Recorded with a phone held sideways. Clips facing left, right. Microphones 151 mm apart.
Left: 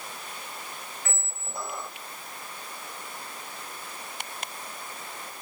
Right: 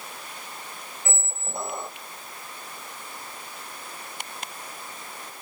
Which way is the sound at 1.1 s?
25° right (ahead or behind).